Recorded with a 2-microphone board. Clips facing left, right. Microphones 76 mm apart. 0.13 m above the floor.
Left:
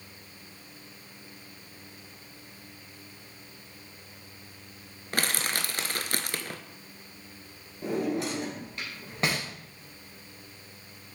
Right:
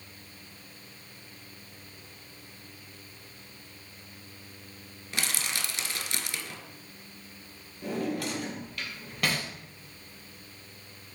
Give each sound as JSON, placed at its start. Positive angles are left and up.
{"t": 5.1, "sound": "crushing", "side_deg": 50, "distance_m": 0.7}
{"t": 7.8, "sound": "a drawer", "side_deg": 25, "distance_m": 2.0}